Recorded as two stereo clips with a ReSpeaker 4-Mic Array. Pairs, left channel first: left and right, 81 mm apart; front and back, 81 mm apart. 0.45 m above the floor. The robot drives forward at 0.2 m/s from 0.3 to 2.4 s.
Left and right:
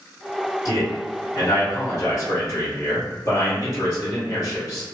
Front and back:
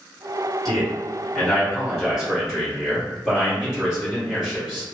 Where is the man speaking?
90° left, 1.9 m; by 4.8 s 105° left, 1.9 m.